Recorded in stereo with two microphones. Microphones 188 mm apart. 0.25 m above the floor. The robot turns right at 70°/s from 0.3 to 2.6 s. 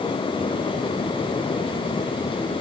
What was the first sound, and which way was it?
Only background noise.